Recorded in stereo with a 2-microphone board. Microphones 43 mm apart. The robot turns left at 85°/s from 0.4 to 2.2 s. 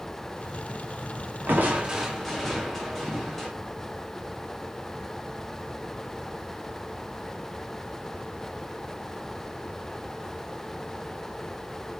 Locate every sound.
1.5 s crushing: 125° right, 2.5 m; by 3.5 s 175° left, 2.5 m